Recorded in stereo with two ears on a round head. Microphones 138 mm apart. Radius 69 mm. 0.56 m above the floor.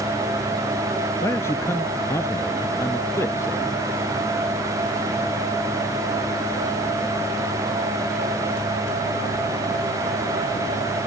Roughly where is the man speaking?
Centre.